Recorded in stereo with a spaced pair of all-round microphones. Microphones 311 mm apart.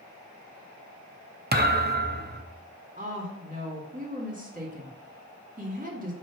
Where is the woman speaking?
25° right (ahead or behind), 1.8 m.